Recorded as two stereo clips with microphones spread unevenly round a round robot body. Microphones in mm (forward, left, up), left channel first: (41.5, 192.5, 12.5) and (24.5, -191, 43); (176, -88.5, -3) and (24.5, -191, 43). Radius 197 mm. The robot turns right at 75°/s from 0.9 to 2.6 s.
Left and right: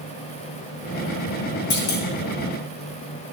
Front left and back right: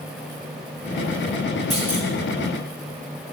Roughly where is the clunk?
Left.